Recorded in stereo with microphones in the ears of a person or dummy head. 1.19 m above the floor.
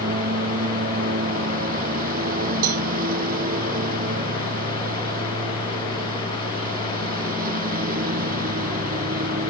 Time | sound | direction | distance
0.0 | a lawn mower | 45° right (ahead or behind) | ?
2.6 | a cowbell | 75° right (ahead or behind) | ?